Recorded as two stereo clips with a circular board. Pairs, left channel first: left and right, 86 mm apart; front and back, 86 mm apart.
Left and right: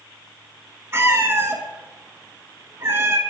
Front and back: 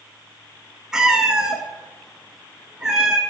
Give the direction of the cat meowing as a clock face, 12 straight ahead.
4 o'clock.